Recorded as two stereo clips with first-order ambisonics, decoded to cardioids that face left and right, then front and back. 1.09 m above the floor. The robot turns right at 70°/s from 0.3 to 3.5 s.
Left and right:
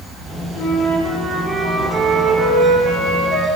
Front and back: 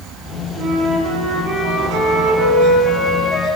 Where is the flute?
120° left, 7.5 m; by 3.5 s 35° right, 7.5 m.